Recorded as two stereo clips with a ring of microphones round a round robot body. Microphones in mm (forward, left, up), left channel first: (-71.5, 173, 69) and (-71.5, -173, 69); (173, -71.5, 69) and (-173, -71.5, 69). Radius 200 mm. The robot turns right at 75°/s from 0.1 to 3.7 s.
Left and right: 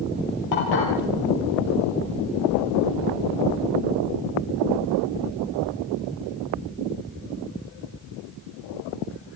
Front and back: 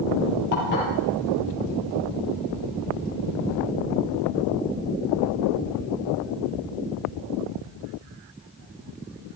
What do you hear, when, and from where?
0.5 s dishes clattering: 50° left, 7.5 m; by 0.9 s 75° left, 7.5 m